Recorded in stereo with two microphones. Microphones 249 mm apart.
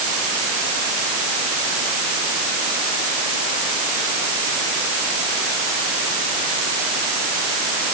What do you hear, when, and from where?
Only background noise.